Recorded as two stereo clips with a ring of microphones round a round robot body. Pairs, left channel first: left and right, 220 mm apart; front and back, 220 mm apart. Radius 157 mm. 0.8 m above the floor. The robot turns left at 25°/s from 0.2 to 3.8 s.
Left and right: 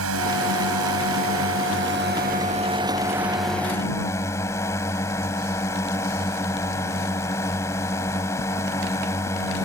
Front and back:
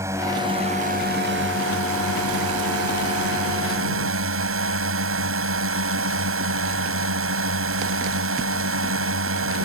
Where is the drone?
100° right; by 9.7 s 170° left.